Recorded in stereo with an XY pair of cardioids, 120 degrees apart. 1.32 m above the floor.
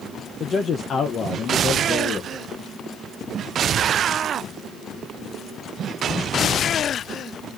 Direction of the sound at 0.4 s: 45° left.